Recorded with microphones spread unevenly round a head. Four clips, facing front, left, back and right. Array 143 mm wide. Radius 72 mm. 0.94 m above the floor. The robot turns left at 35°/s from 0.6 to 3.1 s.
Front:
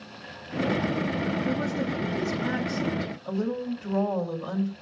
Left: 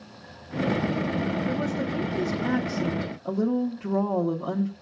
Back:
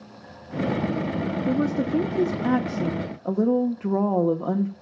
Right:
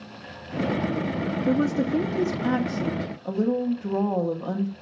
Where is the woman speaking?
115° right, 1.0 m; by 4.7 s 175° right, 1.0 m.